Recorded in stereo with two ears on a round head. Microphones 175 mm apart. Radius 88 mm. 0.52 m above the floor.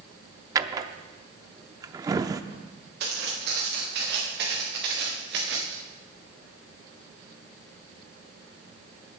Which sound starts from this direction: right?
Footsteps, at 3.0 s.